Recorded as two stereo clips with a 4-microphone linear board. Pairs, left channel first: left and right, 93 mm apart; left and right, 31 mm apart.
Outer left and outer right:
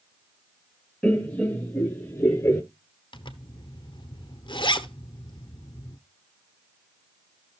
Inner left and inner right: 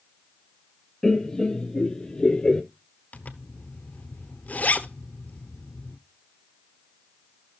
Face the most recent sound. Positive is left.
turn(degrees=60)  # may be behind; listen again after turning